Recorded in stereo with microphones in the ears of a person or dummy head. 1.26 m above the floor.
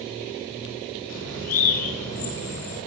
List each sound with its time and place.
1.1 s a bird: 85° left, 9 m